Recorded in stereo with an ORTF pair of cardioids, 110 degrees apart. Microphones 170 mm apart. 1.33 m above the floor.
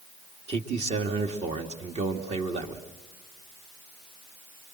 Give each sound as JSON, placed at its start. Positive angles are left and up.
{"t": 0.5, "sound": "a man speaking", "azimuth_deg": -40, "distance_m": 2.0}